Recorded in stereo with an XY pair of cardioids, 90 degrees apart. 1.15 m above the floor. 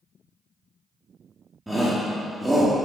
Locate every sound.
1.7 s a shout: 10° right, 1.9 m